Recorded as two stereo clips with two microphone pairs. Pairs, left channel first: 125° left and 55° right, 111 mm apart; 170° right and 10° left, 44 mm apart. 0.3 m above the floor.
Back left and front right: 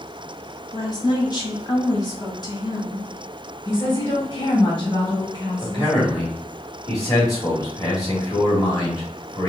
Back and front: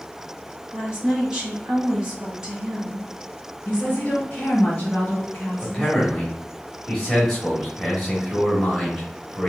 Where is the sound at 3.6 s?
135° left, 2 m.